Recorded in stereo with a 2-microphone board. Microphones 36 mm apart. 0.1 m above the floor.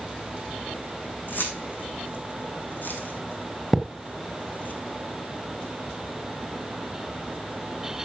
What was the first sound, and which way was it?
Keys jangling, 60° left (ahead or behind).